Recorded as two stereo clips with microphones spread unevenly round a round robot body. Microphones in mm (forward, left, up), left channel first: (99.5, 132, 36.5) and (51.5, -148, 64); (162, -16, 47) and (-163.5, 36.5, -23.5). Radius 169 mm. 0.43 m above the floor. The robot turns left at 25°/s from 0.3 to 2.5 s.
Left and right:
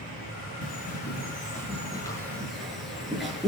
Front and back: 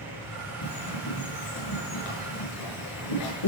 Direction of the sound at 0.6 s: 35° left.